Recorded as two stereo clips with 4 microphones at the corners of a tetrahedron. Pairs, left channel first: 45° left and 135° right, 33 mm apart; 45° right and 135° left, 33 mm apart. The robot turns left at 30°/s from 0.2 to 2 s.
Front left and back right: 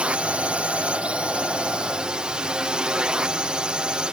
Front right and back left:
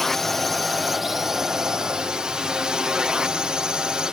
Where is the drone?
125° right; by 4.1 s 175° right.